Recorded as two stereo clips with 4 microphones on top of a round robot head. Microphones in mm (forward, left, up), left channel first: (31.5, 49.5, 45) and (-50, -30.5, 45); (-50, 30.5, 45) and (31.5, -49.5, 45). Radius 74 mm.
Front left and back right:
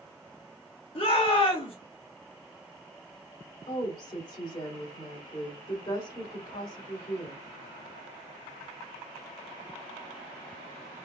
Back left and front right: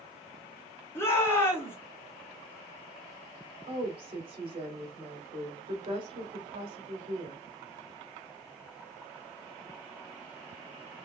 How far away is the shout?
About 1.7 m.